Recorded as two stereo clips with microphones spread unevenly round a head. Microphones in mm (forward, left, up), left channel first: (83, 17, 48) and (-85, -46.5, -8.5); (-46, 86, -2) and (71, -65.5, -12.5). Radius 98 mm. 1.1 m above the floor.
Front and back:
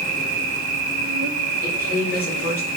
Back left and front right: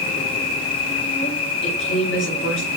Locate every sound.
0.0 s an insect: 175° right, 1.0 m
1.6 s a woman speaking: 100° left, 4 m